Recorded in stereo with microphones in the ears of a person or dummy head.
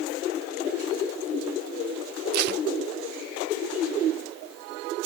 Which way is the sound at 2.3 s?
60° right (ahead or behind).